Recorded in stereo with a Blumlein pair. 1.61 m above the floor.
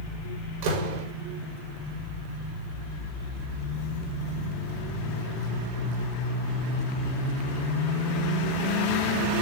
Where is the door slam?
45° right, 4.5 m.